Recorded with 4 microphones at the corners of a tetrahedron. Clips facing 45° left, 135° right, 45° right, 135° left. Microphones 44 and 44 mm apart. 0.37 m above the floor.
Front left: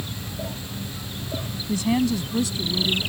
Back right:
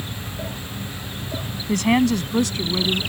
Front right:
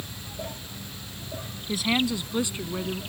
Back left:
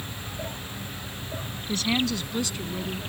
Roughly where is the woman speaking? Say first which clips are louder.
Back right 4 dB, front right 1 dB; behind right.